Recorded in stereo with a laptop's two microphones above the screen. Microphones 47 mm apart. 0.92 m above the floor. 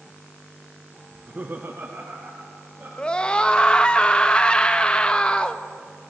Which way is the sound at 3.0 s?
20° left (ahead or behind).